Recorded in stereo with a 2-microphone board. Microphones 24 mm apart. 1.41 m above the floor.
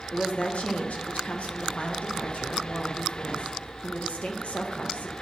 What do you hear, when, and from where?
0.1 s a woman speaking: 65° left (ahead or behind), 1.2 m